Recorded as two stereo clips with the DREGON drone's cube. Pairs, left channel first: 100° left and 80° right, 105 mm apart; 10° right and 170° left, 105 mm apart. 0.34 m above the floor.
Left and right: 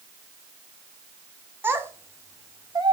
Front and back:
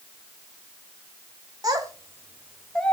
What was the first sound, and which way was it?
A child speaking, 145° right.